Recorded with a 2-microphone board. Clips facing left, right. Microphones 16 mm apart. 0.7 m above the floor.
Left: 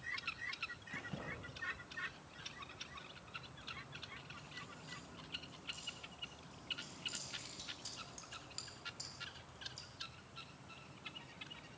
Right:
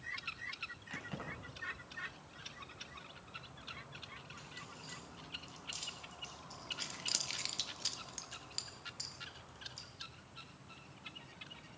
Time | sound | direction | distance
0.9 | keys jangling | 30° right (ahead or behind) | 3.5 m